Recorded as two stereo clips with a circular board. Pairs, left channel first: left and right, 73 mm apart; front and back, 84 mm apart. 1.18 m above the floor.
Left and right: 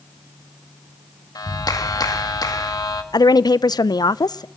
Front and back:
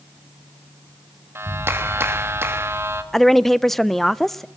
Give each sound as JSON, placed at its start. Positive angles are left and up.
{"t": 1.4, "sound": "a clap", "azimuth_deg": 120, "distance_m": 1.4}
{"t": 3.1, "sound": "a woman speaking", "azimuth_deg": 85, "distance_m": 0.5}